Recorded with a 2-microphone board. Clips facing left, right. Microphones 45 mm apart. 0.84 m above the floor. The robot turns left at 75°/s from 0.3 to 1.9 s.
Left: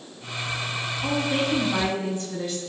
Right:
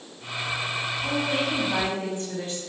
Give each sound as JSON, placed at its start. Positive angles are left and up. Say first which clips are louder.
{"t": 1.0, "sound": "a woman speaking", "louder": "left 2 dB", "azimuth_deg": 25, "distance_m": 5.0}